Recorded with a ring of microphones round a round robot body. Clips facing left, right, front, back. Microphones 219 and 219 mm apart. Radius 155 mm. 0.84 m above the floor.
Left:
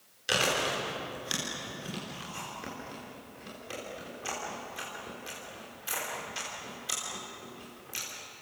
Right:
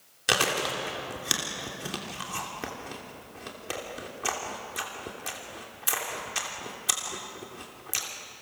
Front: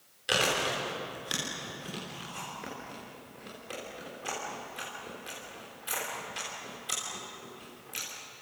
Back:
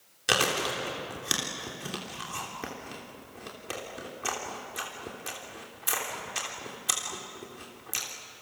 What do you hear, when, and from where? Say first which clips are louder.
0.3 s chewing: right 2 dB, back 1 dB; 135° right, 3 m